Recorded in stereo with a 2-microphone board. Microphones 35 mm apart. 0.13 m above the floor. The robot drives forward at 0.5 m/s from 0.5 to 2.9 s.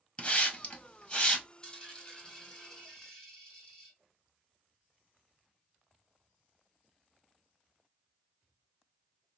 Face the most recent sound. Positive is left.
turn(degrees=15)  # may be behind; listen again after turning